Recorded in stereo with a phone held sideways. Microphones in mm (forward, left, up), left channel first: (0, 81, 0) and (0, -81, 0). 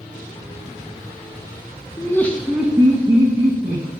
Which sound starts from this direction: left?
Laughter, at 2.0 s.